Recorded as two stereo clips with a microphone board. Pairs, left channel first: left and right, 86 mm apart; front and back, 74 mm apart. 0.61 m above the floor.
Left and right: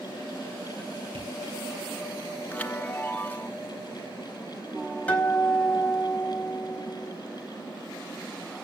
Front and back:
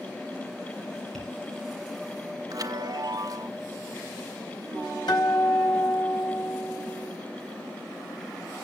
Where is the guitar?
20° left, 4 m.